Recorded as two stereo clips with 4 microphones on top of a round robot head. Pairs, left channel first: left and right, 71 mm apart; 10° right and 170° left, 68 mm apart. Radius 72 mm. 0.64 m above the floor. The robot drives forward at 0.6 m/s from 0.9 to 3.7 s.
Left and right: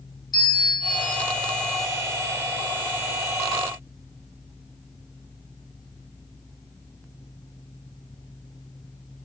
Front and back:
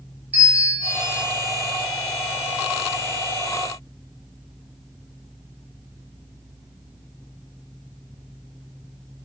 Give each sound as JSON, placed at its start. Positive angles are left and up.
{"t": 0.3, "sound": "a bell", "azimuth_deg": 105, "distance_m": 2.5}